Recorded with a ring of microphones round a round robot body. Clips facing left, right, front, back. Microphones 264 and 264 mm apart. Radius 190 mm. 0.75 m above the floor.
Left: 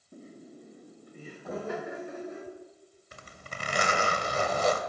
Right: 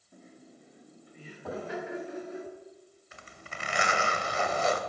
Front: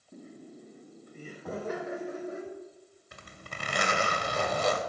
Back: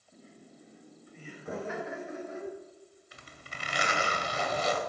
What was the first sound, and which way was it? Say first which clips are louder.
Laughter: left 6 dB, front 7 dB; 35° left.